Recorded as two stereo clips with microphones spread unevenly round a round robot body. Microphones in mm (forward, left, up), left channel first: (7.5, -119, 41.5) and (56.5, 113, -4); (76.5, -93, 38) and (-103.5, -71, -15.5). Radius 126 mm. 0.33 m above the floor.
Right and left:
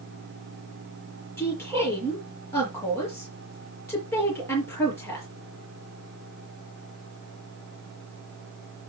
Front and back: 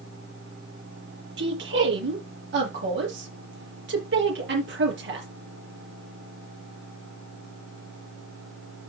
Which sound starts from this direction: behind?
A woman speaking, at 1.4 s.